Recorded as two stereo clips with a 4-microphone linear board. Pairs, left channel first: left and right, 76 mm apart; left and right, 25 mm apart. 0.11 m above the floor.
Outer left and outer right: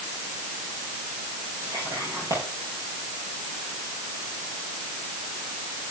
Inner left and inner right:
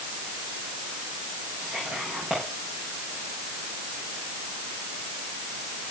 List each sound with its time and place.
1.6 s whispering: 40° right (ahead or behind), 10 m